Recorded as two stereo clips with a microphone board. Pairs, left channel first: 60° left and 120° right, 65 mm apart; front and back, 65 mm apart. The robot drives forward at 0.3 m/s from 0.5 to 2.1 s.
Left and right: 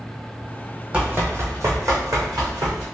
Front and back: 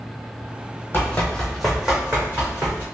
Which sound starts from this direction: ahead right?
Running footsteps, at 0.9 s.